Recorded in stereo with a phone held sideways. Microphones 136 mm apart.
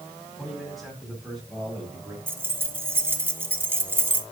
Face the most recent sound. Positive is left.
turn(degrees=-15)  # may be behind; listen again after turning